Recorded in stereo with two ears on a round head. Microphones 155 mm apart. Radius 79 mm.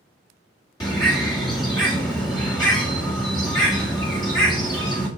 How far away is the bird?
About 1.5 m.